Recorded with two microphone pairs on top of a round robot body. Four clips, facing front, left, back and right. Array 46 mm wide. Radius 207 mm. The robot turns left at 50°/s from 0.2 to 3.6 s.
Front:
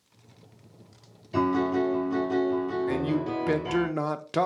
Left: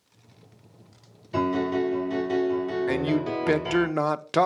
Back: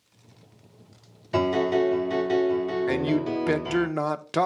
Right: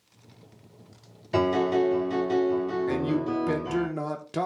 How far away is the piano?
About 3.5 m.